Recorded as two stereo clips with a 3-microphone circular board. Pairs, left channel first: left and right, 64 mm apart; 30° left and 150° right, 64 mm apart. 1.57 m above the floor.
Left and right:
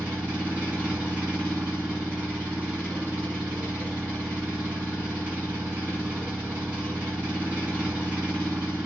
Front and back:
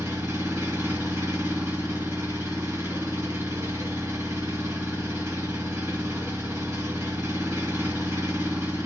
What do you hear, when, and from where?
0.0 s an engine running: 155° right, 2 m